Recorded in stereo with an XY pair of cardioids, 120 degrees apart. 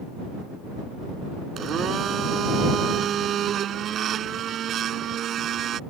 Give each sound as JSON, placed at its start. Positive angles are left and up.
{"t": 1.6, "sound": "a blender", "azimuth_deg": -55}